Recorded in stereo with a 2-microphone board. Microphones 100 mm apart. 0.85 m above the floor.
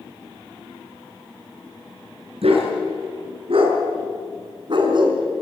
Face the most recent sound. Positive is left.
turn(degrees=-45)  # may be behind; listen again after turning